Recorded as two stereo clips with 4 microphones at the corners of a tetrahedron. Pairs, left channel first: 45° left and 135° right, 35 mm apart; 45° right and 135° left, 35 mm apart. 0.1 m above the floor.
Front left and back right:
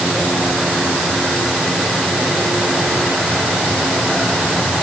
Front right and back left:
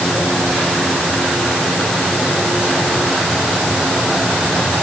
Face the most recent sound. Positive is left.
No sound to turn to.